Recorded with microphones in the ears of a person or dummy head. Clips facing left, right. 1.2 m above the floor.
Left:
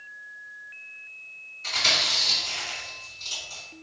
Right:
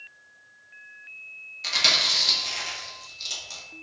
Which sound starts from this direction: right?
Chewing, at 1.6 s.